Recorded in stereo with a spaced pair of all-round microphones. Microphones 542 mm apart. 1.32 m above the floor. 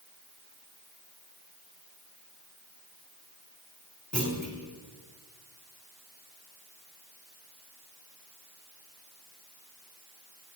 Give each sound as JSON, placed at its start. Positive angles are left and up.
{"t": 4.1, "sound": "a clunk", "side_deg": 0, "distance_m": 1.4}